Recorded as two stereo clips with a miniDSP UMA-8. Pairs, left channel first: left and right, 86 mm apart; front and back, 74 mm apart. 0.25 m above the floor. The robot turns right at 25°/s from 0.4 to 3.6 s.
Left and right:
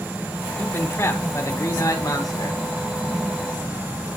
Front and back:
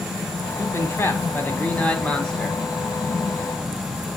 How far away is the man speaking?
About 2 m.